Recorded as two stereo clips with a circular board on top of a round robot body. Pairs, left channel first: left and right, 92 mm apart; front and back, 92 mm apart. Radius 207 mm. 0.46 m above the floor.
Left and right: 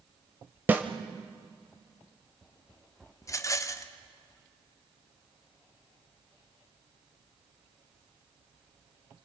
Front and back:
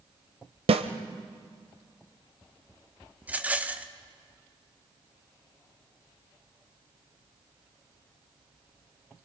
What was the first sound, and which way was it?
A snare drum, 165° right.